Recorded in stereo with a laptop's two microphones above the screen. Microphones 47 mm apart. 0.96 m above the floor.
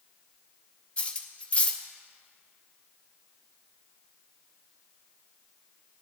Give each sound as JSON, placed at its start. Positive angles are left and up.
{"t": 1.0, "sound": "cutlery clinking", "side_deg": 25, "distance_m": 0.6}